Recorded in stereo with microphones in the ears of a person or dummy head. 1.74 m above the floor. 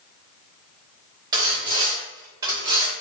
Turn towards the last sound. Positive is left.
turn(degrees=-20)  # may be behind; listen again after turning